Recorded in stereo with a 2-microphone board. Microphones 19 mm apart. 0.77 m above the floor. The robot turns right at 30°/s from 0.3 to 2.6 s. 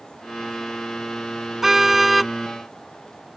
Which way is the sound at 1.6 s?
20° right (ahead or behind).